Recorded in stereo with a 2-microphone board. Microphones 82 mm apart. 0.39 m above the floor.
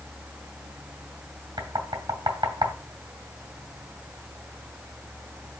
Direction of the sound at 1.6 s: 60° right (ahead or behind).